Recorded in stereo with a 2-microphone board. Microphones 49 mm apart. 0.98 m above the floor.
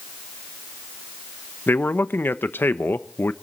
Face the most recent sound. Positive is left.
turn(degrees=45)  # may be behind; listen again after turning